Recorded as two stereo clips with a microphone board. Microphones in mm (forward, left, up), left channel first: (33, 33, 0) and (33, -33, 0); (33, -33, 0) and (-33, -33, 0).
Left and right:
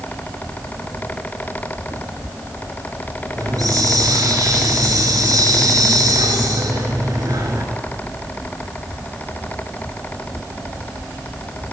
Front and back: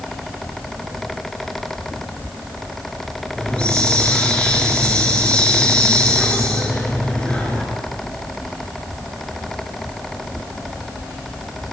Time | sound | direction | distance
3.4 | a hiss | 75° right | 3.5 m